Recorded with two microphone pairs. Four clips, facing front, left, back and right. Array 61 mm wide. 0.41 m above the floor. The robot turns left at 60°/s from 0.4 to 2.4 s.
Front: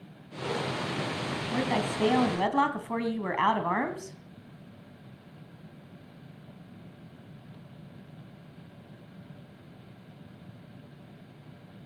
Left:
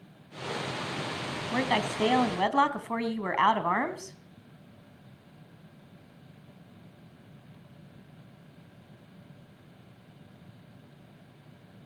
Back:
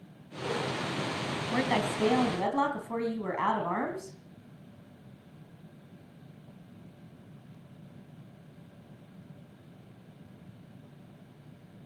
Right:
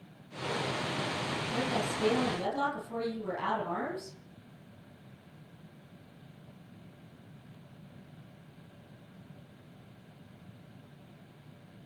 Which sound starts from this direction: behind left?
A woman speaking, at 1.5 s.